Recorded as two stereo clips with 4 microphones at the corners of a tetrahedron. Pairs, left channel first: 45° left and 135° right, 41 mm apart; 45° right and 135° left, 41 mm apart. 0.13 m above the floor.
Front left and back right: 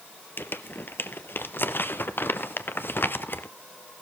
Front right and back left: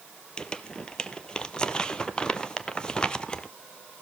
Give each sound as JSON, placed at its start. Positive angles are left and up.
{"t": 0.4, "sound": "crumpling", "azimuth_deg": 25, "distance_m": 0.8}